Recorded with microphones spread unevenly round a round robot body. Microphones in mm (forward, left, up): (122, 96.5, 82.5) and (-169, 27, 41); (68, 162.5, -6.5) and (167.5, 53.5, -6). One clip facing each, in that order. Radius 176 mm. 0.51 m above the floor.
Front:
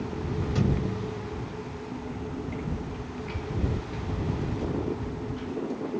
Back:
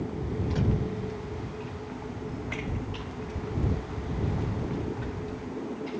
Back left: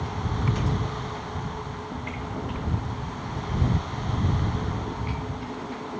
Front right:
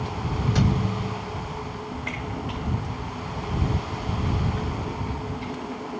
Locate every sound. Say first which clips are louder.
0.6 s a thud: front 3 dB, front right 5 dB; 65° right